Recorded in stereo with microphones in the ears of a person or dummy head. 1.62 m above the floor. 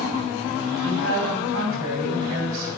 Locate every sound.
0.8 s a woman speaking: 75° right (ahead or behind), 3 m